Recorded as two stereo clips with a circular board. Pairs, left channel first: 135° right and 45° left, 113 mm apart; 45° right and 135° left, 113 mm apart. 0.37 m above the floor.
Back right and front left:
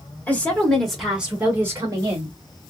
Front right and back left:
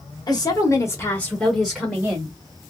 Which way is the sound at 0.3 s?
65° right.